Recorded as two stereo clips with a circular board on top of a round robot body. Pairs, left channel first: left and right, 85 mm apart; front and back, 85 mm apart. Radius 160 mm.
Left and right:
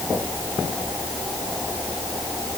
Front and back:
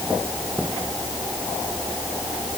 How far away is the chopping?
I don't hear chopping.